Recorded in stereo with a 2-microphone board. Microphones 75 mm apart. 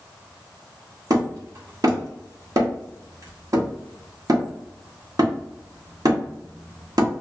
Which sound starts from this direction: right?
Hammering, at 1.1 s.